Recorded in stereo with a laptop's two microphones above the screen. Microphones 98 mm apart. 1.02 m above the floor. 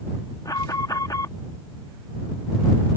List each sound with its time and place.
0.5 s an alarm: 40° left (ahead or behind)